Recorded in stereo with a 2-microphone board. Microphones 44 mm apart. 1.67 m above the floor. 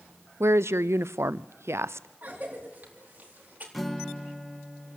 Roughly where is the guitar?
Centre.